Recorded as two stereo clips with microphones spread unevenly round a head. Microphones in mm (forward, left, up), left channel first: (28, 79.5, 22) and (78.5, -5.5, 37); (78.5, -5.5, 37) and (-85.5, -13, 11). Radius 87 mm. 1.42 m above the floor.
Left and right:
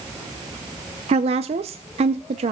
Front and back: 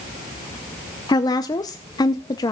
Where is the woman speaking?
60° right, 0.6 m.